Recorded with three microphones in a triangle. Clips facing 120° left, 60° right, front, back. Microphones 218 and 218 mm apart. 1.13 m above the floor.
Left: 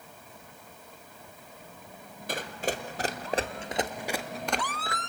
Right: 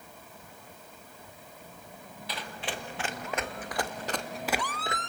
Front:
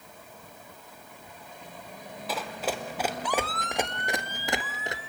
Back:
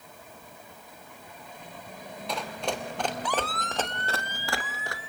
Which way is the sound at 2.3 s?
85° left.